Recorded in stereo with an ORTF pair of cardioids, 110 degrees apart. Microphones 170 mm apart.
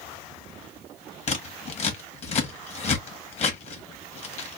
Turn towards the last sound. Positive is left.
turn(degrees=40)